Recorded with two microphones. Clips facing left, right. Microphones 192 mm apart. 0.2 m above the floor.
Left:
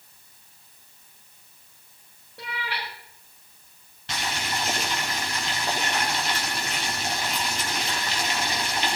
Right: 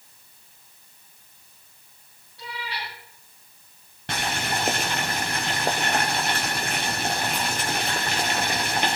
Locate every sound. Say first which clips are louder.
2.4 s a cat meowing: left 1 dB; 65° left (ahead or behind), 7 m
4.1 s boiling: right 3 dB; 55° right (ahead or behind), 4 m